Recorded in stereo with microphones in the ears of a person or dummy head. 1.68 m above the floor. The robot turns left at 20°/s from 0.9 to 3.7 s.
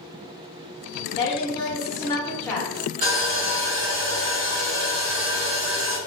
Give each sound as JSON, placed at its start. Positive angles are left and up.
{"t": 1.2, "sound": "a woman speaking", "azimuth_deg": 35, "distance_m": 0.8}
{"t": 3.0, "sound": "sawing", "side_deg": -50, "distance_m": 1.2}